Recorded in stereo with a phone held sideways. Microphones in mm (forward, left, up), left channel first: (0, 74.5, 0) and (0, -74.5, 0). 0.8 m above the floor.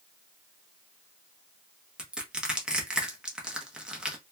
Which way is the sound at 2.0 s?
5° right (ahead or behind).